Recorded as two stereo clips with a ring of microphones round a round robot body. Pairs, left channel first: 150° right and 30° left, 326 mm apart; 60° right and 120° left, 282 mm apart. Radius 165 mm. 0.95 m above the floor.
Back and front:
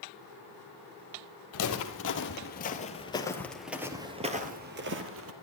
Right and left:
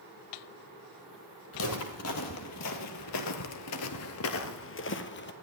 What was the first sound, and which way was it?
Footsteps, 110° right.